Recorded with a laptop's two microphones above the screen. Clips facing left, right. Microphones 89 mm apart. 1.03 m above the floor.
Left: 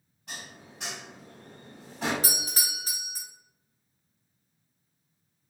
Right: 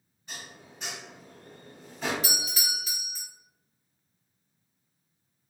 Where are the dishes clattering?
75° left (ahead or behind), 1.5 m.